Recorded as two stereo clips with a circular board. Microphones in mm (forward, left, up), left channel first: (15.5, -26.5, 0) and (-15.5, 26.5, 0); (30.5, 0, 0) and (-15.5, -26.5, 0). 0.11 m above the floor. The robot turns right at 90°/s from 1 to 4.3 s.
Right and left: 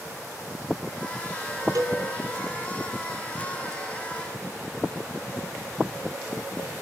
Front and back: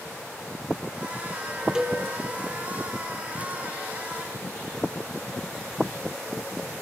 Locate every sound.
1.8 s a cowbell: 135° left, 1.9 m; by 2.0 s 155° left, 1.9 m